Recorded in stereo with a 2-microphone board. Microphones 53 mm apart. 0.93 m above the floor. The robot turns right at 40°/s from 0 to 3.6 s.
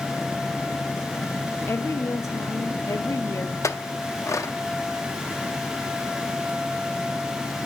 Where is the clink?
70° left (ahead or behind), 0.6 m.